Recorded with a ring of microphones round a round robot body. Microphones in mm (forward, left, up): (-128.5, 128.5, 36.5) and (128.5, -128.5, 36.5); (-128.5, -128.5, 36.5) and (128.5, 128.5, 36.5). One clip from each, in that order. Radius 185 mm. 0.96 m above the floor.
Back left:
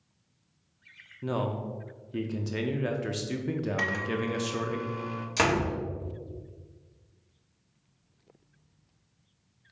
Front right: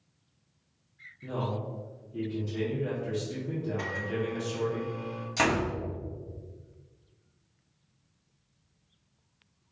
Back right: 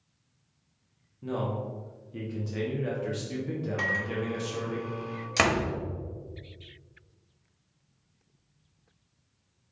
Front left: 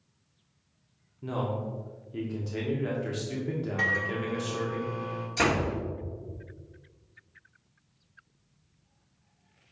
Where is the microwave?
150° left, 0.9 m.